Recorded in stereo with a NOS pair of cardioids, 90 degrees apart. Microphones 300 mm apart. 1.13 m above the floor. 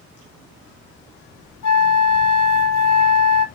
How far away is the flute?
About 1.1 m.